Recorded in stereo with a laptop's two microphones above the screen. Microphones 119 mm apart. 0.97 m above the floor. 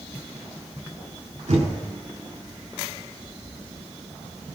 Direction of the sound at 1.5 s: 80° right.